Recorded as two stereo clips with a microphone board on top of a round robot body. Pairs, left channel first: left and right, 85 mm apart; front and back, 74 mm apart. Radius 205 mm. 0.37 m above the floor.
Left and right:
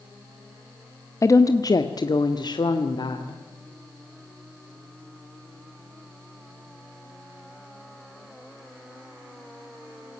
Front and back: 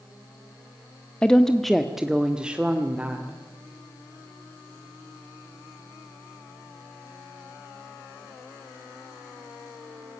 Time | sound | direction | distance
1.2 | a woman speaking | 70° left | 1.4 m